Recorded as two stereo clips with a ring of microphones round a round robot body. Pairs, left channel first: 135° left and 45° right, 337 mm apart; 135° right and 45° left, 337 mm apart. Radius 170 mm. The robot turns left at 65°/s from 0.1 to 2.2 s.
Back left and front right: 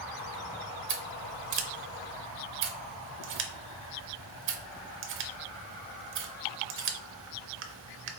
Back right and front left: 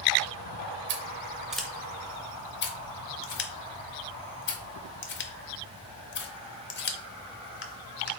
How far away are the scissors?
About 0.6 m.